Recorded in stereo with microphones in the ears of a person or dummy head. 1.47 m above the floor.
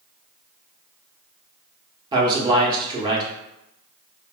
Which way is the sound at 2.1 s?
25° right (ahead or behind).